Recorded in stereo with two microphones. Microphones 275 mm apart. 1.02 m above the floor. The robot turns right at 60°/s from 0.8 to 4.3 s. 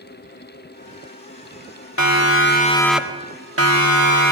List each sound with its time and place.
2.0 s a siren: 75° left (ahead or behind), 2 m; by 4.3 s 70° right (ahead or behind), 2 m